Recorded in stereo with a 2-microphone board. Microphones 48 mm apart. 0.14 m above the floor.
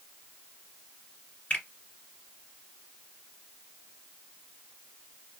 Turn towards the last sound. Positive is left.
turn(degrees=30)  # may be behind; listen again after turning